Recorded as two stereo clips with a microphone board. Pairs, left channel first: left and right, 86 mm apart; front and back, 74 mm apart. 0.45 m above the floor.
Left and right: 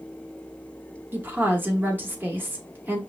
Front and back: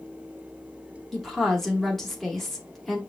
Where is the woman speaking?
85° right, 1.0 m.